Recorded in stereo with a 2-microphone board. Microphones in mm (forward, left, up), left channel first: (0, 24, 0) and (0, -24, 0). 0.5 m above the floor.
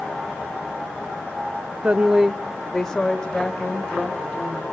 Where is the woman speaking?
30° right (ahead or behind), 0.7 m; by 4.6 s 20° left (ahead or behind), 3.5 m.